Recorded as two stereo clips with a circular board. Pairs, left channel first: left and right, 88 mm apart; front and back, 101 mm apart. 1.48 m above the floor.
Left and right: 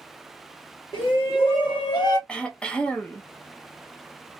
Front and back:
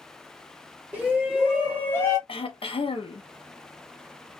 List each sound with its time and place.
0.9 s a shout: 95° left, 1.3 m; by 2.2 s 50° left, 0.6 m
2.3 s throat clearing: 10° left, 0.6 m